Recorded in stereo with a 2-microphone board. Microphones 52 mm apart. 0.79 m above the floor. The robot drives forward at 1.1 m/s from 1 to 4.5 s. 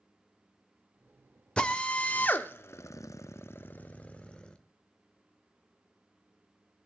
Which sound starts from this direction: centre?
A drill, at 1.6 s.